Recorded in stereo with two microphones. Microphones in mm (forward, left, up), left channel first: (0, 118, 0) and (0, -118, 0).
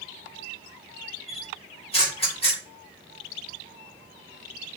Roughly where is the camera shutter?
Left.